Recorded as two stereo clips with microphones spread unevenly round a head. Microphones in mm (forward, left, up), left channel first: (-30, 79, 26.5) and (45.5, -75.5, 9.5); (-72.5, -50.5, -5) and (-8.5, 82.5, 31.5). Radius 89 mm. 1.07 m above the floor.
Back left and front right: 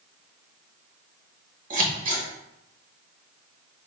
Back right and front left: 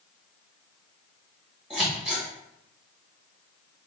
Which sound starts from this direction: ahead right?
Scissors, at 1.7 s.